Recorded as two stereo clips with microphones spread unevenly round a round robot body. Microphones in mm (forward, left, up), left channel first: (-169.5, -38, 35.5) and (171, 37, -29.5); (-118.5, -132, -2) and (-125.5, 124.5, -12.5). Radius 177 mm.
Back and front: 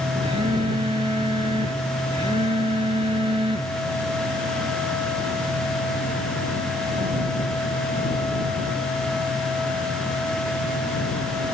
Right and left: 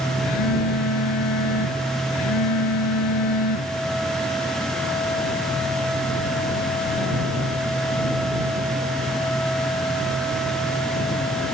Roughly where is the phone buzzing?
Ahead right.